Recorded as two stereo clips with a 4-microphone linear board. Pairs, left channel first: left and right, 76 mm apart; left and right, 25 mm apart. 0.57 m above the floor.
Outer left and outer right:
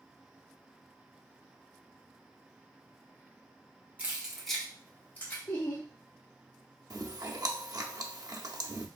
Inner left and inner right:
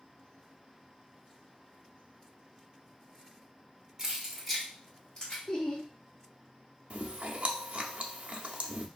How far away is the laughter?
About 0.9 m.